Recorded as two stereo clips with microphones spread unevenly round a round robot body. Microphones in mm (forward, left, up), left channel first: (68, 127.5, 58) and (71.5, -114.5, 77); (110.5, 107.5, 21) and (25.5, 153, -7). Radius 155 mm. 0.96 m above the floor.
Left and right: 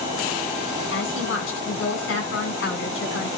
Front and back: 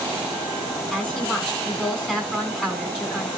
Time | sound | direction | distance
0.9 | a woman speaking | 55° left | 8.5 m